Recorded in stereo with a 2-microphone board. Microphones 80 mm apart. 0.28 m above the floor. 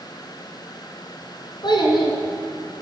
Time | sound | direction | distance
1.6 | a child speaking | 70° left (ahead or behind) | 2.5 m